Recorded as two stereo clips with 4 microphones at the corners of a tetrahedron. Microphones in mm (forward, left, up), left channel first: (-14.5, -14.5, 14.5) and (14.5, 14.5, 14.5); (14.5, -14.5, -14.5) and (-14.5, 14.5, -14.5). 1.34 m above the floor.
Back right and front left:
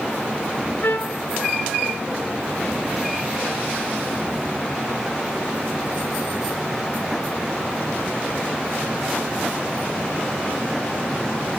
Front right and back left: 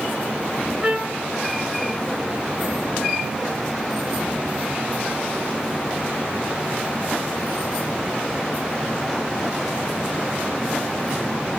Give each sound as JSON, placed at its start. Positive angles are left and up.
{"t": 0.8, "sound": "a trumpet", "azimuth_deg": -155, "distance_m": 2.0}